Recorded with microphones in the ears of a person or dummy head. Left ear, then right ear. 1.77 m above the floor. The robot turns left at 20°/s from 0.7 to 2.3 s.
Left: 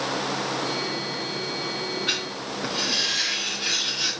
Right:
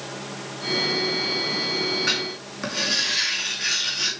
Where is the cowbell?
No cowbell in this recording.